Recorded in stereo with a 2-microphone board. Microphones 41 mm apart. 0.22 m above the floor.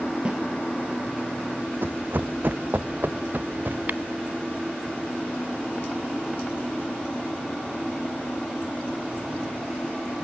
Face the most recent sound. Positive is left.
turn(degrees=-45)  # may be behind; listen again after turning